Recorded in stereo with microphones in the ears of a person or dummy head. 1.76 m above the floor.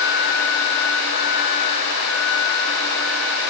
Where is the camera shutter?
I don't hear a camera shutter.